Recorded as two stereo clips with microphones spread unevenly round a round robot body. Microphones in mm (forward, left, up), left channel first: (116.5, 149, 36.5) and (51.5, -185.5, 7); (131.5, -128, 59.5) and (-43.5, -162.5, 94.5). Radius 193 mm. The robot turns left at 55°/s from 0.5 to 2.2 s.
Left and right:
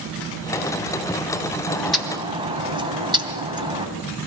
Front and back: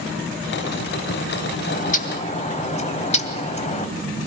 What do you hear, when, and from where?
1.7 s a bird: straight ahead, 2.5 m; by 3.9 s 30° right, 2.5 m